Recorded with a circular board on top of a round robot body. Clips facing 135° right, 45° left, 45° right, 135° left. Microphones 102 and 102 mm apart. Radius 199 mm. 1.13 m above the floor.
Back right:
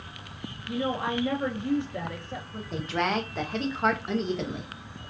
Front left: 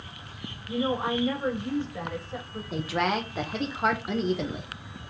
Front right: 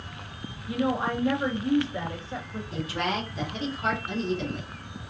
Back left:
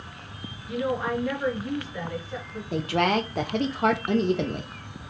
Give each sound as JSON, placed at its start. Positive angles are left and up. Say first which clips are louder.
{"t": 0.7, "sound": "a woman speaking", "louder": "front left 2 dB, even", "azimuth_deg": -105, "distance_m": 2.5}
{"t": 2.7, "sound": "a woman speaking", "louder": "front left 1 dB, back left 7 dB", "azimuth_deg": 130, "distance_m": 0.7}